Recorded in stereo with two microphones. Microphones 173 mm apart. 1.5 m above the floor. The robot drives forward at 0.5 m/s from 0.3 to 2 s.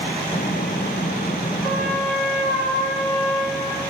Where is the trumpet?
Centre (ahead or behind), 6 m.